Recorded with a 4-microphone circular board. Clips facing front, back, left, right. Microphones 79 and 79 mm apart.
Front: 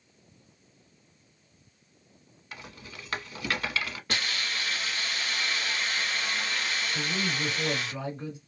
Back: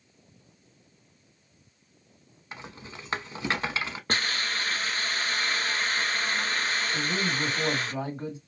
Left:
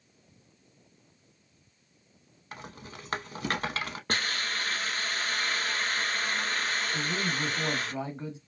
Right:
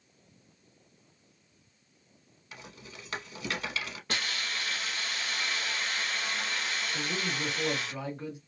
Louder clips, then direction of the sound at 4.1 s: Back 3 dB, left 3 dB; 135° left.